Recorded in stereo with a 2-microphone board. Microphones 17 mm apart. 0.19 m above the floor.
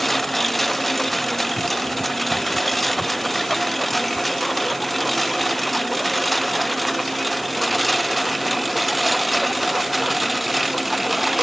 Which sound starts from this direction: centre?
A lawn mower, at 0.0 s.